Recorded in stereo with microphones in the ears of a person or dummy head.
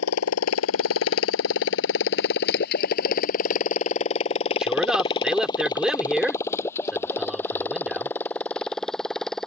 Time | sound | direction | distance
0.0 | a motorcycle | 80° left | ?
4.6 | a man speaking | centre (ahead or behind) | ?